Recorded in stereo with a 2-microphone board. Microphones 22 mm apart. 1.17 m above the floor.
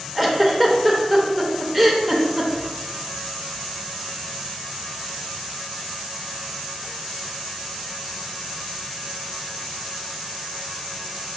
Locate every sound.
0.1 s a giggle: centre (ahead or behind), 0.6 m